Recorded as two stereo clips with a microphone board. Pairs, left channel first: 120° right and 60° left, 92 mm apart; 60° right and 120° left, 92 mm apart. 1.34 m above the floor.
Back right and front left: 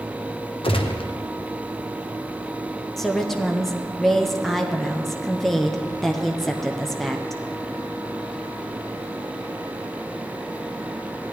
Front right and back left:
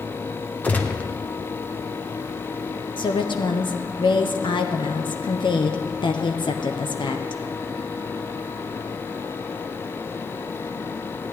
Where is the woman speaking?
35° right, 0.6 m.